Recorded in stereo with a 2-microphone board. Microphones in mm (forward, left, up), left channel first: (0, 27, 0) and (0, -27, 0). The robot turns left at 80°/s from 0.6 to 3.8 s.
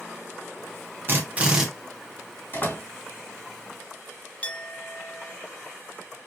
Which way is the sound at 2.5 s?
40° left (ahead or behind).